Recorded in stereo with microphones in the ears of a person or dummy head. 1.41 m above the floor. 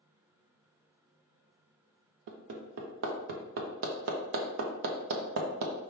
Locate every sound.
2.3 s hammering: 65° right (ahead or behind), 0.7 m